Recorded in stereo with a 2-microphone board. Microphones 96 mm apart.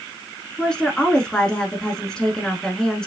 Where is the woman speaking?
10° left (ahead or behind), 1.1 m.